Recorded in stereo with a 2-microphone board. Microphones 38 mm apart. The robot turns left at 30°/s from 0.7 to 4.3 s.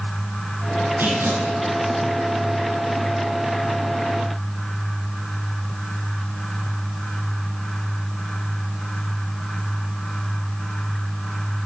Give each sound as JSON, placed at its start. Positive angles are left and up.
{"t": 1.0, "sound": "tearing paper", "side_deg": -70, "distance_m": 6.0}